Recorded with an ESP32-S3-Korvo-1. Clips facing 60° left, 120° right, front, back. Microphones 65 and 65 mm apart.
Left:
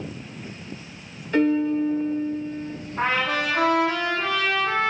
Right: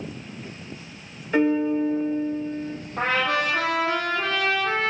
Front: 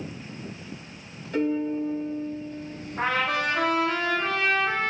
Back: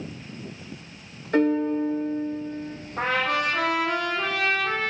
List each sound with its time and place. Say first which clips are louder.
1.3 s a piano: even, back 4 dB; 160° left, 0.8 m
3.0 s a trumpet: even, back 1 dB; 155° right, 4 m